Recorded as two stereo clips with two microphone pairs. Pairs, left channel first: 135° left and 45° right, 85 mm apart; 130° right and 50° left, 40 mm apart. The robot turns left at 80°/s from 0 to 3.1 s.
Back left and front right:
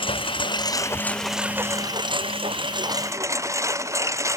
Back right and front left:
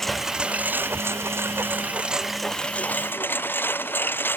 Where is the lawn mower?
150° left; by 4.4 s 100° right.